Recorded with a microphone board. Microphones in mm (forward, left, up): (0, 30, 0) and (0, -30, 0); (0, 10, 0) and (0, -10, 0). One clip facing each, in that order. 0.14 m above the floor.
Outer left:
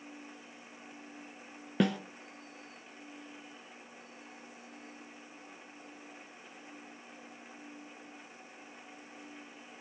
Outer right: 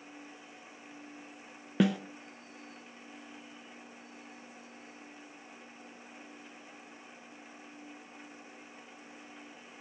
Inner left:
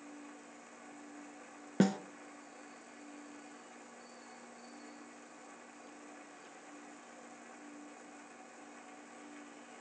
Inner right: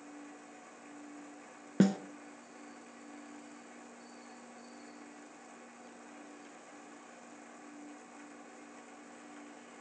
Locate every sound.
1.8 s a snare drum: centre (ahead or behind), 0.6 m